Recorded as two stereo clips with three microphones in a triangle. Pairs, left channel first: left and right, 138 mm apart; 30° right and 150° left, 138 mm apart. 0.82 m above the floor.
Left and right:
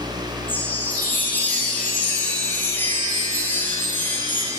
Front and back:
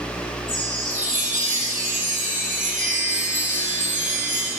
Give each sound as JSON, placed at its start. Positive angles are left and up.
{"t": 0.5, "sound": "a chime", "azimuth_deg": 165, "distance_m": 3.5}